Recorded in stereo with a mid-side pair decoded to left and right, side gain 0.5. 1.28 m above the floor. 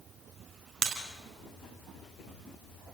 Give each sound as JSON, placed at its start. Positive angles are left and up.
{"t": 0.8, "sound": "breaking glass", "azimuth_deg": -40, "distance_m": 4.5}